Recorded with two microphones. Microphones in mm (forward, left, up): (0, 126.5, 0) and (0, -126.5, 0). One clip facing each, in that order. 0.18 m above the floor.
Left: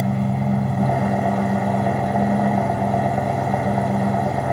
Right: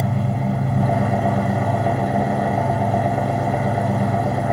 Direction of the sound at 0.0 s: 10° right (ahead or behind).